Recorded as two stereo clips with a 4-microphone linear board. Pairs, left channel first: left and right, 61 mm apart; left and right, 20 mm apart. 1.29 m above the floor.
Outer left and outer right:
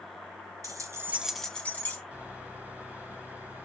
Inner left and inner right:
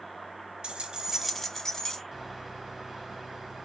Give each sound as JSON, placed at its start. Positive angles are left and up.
{"t": 0.6, "sound": "keys jangling", "side_deg": -75, "distance_m": 0.7}
{"t": 2.1, "sound": "a microwave", "side_deg": -25, "distance_m": 2.0}